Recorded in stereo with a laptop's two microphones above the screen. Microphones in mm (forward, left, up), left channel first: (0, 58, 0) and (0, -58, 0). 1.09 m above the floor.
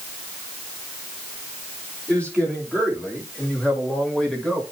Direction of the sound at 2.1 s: 15° left (ahead or behind).